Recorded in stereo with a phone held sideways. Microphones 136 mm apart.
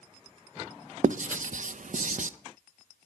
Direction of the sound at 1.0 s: 70° right (ahead or behind).